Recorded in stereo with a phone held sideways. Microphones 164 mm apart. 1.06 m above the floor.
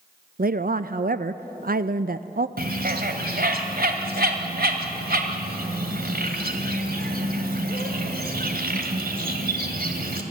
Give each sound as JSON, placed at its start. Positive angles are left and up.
{"t": 0.4, "sound": "a woman speaking", "side_deg": -65, "distance_m": 0.5}
{"t": 2.6, "sound": "a bird", "side_deg": -70, "distance_m": 1.9}